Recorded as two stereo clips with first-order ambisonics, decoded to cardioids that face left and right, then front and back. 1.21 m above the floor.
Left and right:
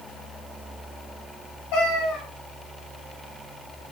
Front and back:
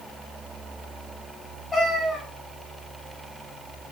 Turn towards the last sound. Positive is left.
turn(degrees=80)